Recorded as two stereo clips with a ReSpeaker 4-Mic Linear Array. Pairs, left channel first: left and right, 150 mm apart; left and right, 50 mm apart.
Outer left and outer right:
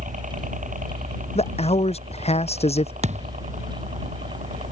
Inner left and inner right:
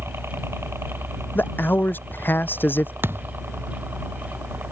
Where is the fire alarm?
No fire alarm in this recording.